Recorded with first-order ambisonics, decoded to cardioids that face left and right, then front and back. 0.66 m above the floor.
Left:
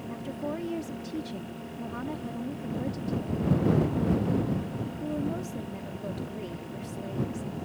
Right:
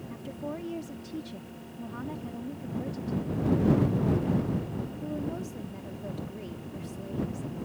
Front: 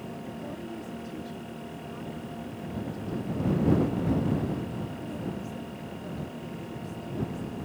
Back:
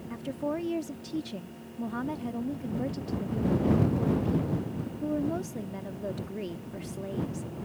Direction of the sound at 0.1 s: 165° left.